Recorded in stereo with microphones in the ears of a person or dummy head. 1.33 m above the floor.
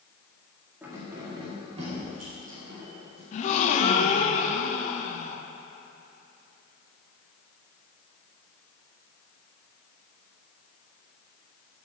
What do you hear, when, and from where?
0.8 s keys jangling: 10° right (ahead or behind), 1.9 m; by 3.2 s 50° right (ahead or behind), 3.5 m
3.3 s a gasp: 45° left (ahead or behind), 0.8 m